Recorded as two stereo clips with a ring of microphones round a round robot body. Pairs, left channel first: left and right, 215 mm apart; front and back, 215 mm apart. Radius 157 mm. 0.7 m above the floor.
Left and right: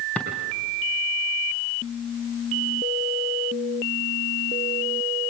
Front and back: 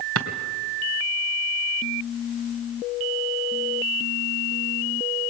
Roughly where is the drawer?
Behind.